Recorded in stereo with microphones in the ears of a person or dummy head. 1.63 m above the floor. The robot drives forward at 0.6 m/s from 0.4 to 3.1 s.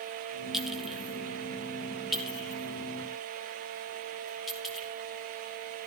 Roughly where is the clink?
Centre.